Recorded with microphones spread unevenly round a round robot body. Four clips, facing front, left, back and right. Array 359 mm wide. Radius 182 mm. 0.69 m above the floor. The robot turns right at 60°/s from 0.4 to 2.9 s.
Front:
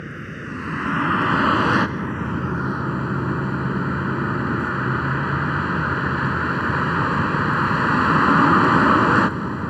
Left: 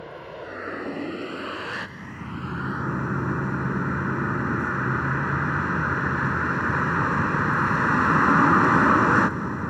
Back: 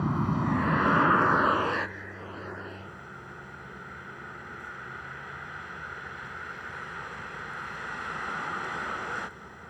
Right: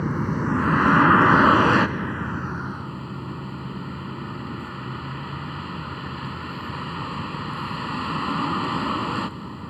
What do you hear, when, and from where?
0.0 s a vehicle: 125° right; by 9.7 s 25° left